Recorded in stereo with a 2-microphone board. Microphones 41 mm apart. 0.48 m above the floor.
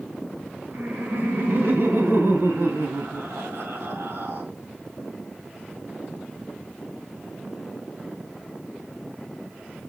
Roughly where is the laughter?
Right.